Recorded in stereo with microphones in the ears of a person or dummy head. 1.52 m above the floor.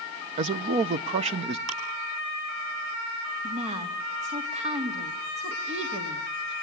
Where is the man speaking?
40° right (ahead or behind), 0.6 m.